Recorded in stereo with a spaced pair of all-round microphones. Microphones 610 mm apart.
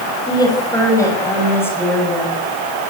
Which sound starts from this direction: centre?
A woman speaking, at 0.3 s.